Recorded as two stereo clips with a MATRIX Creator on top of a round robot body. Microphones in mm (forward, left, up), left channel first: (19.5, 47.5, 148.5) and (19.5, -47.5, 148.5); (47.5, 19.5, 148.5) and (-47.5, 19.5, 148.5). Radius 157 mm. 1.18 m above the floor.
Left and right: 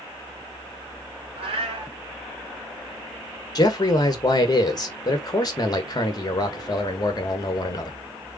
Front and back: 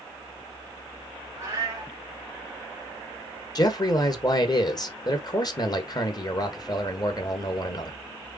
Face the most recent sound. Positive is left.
turn(degrees=45)